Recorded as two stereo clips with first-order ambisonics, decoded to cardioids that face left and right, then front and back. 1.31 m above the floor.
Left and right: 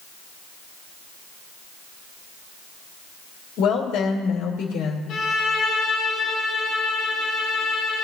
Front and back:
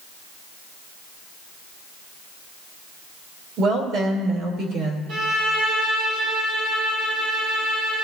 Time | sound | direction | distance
3.6 | a woman speaking | 130° left | 2 m
5.1 | a violin | 150° left | 2.5 m